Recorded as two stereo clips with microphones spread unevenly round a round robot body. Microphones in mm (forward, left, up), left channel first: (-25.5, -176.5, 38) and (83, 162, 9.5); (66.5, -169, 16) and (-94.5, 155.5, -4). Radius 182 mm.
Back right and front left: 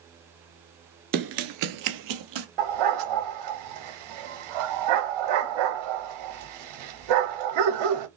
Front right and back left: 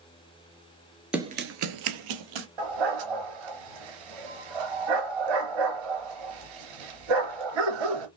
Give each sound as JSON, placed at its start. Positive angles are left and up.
{"t": 1.1, "sound": "running footsteps", "azimuth_deg": 25, "distance_m": 0.8}
{"t": 2.6, "sound": "a dog barking", "azimuth_deg": 95, "distance_m": 3.0}